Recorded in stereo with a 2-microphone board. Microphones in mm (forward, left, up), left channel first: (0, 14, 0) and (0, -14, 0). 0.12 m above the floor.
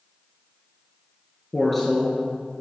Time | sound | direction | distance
1.5 | a woman speaking | 10° left (ahead or behind) | 1.5 m